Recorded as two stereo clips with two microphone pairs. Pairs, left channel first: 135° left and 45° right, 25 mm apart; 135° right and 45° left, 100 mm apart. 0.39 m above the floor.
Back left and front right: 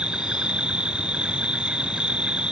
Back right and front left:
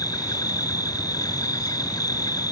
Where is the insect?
85° right.